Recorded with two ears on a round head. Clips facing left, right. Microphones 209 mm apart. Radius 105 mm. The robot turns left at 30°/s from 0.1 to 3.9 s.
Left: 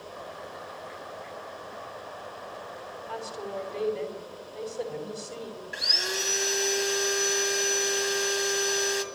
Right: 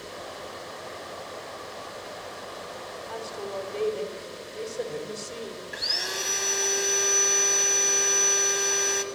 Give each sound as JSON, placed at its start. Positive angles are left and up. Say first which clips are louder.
{"t": 3.1, "sound": "a woman speaking", "louder": "right 1 dB", "side_deg": 10, "distance_m": 4.0}
{"t": 5.7, "sound": "sawing", "louder": "left 1 dB", "side_deg": 5, "distance_m": 1.7}